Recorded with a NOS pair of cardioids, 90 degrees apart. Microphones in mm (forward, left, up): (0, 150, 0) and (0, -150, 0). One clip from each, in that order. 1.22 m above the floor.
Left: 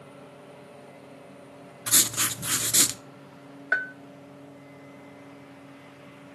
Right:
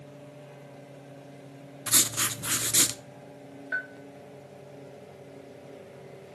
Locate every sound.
1.9 s writing: 10° left, 0.6 m
3.7 s a bell: 50° left, 0.7 m